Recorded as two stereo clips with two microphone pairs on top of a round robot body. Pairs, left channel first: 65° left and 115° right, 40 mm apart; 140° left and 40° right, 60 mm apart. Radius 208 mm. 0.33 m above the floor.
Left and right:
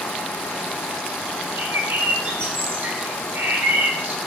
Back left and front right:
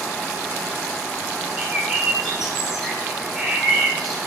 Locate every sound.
1.6 s a bird: 125° right, 2 m